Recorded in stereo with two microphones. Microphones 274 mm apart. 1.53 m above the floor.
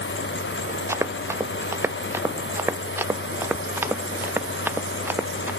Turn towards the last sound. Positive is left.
turn(degrees=-5)  # may be behind; listen again after turning